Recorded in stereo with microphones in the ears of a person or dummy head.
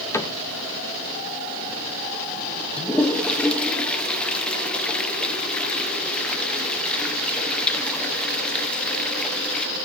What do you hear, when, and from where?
0.1 s a cupboard door: 10° left (ahead or behind), 1.2 m
2.8 s a toilet flushing: 5° left (ahead or behind), 1.2 m